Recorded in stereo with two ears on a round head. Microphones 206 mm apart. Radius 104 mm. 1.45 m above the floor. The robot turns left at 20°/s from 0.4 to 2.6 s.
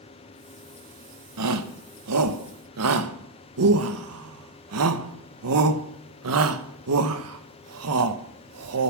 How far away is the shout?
About 1.4 m.